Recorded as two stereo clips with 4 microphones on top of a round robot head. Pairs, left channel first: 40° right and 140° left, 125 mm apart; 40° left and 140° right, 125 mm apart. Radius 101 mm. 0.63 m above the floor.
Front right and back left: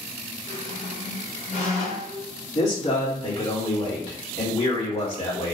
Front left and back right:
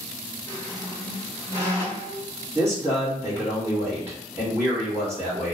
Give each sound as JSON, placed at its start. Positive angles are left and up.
{"t": 0.5, "sound": "a squeak", "azimuth_deg": -20, "distance_m": 1.4}
{"t": 2.5, "sound": "a man speaking", "azimuth_deg": -65, "distance_m": 1.7}